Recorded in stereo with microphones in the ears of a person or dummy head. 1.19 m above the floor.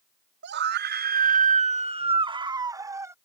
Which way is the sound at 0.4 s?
65° right (ahead or behind).